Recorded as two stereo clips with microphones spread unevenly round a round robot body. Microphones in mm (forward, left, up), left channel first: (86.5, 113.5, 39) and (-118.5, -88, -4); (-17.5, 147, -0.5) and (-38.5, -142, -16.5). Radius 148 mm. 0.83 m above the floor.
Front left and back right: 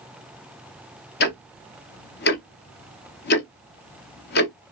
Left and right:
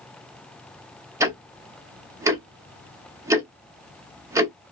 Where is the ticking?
15° right, 0.8 m.